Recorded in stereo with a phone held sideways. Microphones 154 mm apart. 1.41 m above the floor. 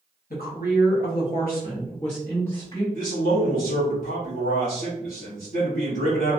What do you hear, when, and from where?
0.3 s a woman speaking: 70° left (ahead or behind), 1.0 m; by 2.8 s 35° left (ahead or behind), 1.5 m
2.9 s a man speaking: 60° left (ahead or behind), 1.1 m